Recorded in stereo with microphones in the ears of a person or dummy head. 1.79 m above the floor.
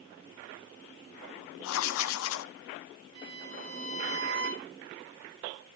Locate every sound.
1.6 s writing: 75° left (ahead or behind), 0.8 m
3.1 s a violin: 85° right, 6 m